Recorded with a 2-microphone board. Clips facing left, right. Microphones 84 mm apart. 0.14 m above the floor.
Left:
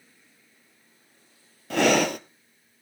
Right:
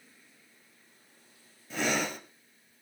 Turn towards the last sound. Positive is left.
turn(degrees=75)  # may be behind; listen again after turning